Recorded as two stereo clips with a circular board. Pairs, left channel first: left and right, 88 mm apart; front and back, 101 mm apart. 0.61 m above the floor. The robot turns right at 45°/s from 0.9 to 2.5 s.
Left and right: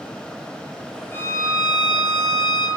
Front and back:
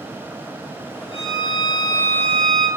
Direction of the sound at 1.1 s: 25° left.